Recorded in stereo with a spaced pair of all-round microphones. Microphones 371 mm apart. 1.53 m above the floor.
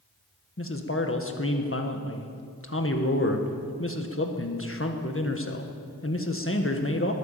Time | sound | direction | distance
0.6 | a man speaking | 35° left (ahead or behind) | 1.7 m